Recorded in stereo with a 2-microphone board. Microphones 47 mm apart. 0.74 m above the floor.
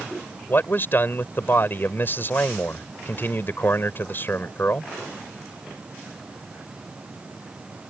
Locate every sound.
0.5 s a man speaking: 45° left (ahead or behind)